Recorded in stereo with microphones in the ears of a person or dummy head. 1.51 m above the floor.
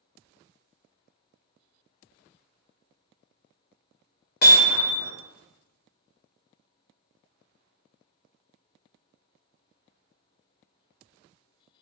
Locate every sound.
4.4 s hammering: 55° left (ahead or behind), 1.2 m